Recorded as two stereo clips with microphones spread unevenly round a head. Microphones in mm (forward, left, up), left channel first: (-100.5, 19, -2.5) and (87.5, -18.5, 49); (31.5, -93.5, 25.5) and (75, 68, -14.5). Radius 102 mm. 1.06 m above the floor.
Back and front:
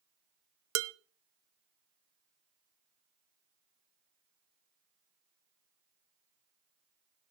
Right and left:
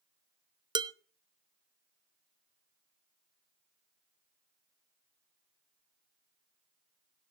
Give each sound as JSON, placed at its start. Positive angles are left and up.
{"t": 0.8, "sound": "dishes clattering", "azimuth_deg": 10, "distance_m": 0.8}